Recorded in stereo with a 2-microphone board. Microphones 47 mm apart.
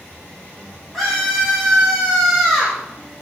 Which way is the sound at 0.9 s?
Centre (ahead or behind).